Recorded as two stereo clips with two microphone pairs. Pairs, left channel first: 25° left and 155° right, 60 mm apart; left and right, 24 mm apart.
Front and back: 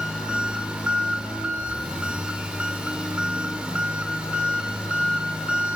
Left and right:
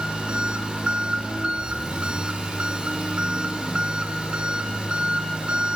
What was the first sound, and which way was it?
An engine running, 85° right.